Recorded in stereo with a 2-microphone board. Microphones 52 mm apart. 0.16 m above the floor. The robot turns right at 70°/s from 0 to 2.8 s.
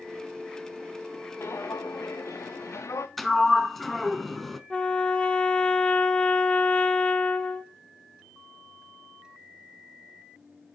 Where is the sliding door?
5° left (ahead or behind), 0.7 m.